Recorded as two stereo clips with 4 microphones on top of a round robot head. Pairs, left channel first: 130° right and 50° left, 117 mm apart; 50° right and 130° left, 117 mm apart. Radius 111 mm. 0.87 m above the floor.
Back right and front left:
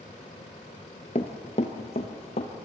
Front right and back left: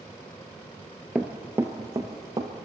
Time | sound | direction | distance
1.1 | running footsteps | 155° right | 1.0 m